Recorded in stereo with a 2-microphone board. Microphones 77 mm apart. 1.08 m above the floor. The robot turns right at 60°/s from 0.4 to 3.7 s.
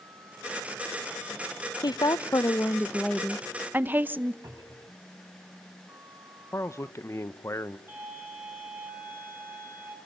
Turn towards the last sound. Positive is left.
turn(degrees=-30)  # may be behind; listen again after turning